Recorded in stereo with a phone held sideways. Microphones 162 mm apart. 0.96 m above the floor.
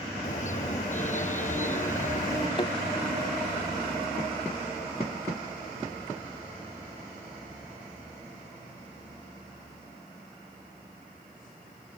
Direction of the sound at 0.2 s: 50° left (ahead or behind).